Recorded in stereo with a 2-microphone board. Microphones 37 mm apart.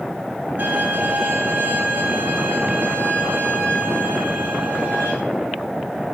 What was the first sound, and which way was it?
A violin, 55° right (ahead or behind).